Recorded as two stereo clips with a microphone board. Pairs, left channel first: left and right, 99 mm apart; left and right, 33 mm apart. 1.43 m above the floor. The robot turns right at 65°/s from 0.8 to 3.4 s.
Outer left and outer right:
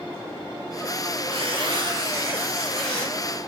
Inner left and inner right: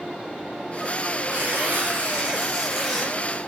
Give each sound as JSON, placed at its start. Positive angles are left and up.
{"t": 1.3, "sound": "tearing paper", "azimuth_deg": -95, "distance_m": 0.7}